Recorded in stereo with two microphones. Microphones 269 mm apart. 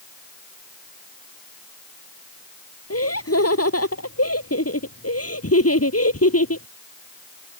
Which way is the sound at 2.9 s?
60° left (ahead or behind).